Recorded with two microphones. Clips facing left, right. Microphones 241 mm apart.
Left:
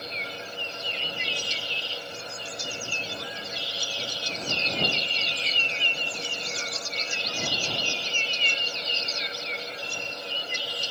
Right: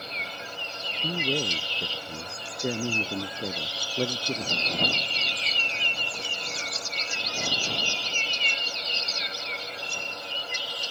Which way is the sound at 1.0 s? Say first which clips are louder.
Right 9 dB; 85° right.